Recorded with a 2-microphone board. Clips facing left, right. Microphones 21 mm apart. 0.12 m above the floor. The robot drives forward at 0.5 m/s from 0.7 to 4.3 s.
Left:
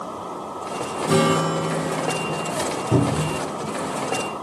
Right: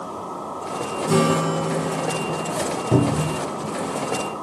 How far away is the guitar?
About 0.7 m.